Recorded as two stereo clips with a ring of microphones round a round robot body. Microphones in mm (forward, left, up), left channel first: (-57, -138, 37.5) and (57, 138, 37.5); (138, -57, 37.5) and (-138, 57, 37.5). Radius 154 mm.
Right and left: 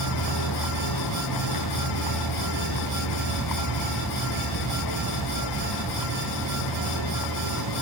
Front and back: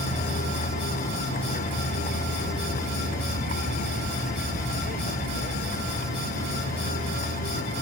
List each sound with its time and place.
0.0 s a vehicle: 90° right; by 7.8 s 85° right